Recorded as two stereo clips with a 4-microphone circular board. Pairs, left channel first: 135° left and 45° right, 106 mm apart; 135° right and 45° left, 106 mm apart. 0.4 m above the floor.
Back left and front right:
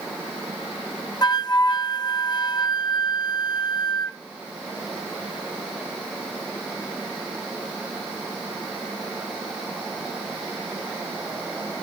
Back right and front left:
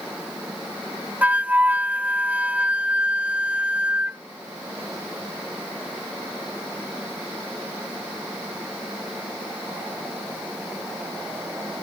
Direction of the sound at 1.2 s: 115° left.